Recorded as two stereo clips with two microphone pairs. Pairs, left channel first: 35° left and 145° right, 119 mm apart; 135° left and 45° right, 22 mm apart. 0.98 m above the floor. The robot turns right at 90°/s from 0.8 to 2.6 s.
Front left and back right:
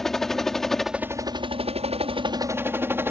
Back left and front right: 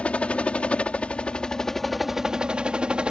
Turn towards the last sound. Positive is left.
turn(degrees=-75)